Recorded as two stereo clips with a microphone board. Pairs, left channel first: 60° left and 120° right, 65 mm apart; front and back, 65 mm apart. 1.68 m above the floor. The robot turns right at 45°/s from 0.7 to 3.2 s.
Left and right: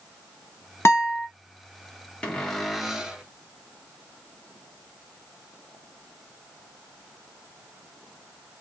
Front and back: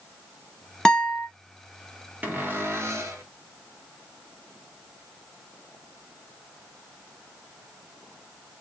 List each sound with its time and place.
0.8 s a guitar: 75° left, 1.1 m; by 1.3 s 95° left, 1.1 m
2.2 s a cupboard door: 125° left, 0.9 m; by 3.2 s 170° left, 0.9 m